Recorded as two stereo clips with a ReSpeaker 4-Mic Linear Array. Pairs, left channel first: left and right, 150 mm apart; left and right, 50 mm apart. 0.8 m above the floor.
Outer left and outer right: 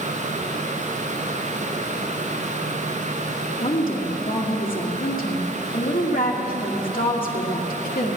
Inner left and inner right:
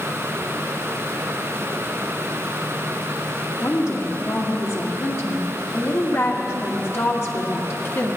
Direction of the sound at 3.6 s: 60° left (ahead or behind).